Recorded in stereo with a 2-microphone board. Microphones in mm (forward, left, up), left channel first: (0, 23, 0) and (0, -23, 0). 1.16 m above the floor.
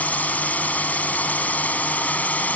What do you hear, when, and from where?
0.0 s a drone: 35° left (ahead or behind)